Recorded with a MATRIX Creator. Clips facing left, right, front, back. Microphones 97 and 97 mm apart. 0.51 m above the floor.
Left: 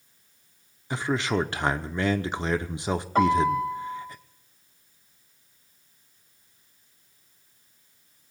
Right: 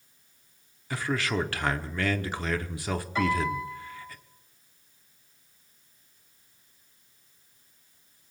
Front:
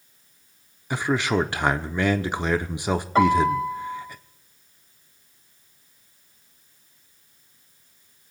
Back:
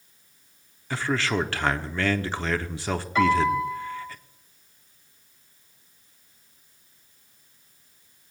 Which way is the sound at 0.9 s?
55° left.